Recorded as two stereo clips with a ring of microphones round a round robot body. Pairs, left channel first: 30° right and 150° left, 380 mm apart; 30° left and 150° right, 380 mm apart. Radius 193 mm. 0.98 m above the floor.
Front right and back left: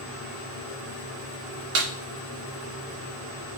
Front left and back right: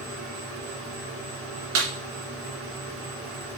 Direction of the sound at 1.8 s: 155° left.